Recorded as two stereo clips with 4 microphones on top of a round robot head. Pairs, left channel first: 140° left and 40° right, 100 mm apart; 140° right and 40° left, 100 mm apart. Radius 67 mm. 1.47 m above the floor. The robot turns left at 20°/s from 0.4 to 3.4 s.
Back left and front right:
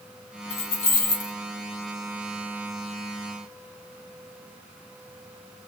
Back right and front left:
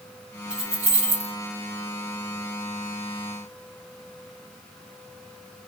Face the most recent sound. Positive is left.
turn(degrees=60)